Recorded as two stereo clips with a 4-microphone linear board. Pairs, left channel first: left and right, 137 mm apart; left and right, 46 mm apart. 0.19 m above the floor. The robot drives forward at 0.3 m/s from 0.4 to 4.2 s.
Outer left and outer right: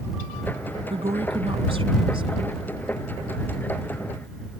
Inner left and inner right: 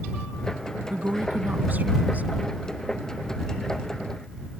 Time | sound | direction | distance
0.9 | a woman speaking | 45° right (ahead or behind) | ?